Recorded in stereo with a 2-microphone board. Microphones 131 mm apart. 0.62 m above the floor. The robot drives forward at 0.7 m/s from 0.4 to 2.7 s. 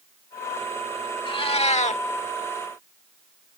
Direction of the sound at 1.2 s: 45° left (ahead or behind).